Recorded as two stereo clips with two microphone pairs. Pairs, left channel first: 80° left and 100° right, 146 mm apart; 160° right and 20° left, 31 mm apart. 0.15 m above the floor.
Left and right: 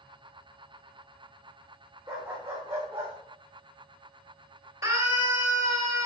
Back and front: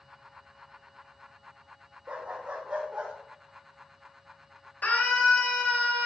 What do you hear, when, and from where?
2.1 s a dog barking: 25° right, 3 m
4.8 s a scream: 165° right, 3.5 m